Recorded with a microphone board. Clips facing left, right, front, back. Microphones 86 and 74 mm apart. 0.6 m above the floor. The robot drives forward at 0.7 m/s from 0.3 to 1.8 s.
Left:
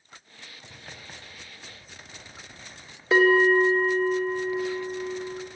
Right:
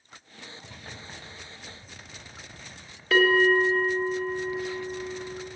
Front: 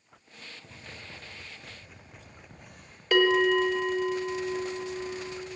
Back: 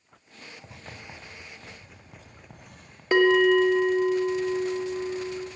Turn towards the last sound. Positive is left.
turn(degrees=145)